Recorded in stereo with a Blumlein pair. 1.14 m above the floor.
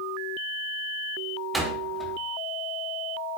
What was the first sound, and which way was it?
A door slam, 5° right.